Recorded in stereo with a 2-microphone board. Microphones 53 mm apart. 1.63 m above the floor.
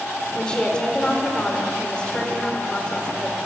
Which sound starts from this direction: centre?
A woman speaking, at 0.3 s.